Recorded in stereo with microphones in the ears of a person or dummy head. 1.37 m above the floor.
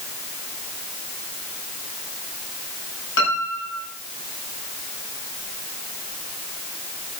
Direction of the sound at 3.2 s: 85° left.